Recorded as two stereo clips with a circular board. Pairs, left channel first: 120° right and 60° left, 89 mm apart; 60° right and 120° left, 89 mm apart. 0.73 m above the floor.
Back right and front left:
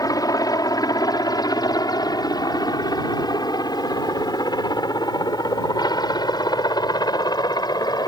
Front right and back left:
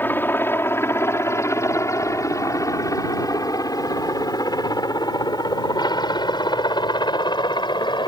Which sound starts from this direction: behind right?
A helicopter, at 0.0 s.